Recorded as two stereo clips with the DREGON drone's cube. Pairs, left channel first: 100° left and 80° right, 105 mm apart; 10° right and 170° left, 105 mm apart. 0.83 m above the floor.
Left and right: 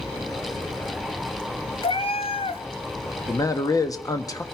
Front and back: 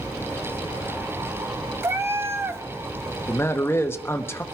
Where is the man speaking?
50° left, 1.0 m.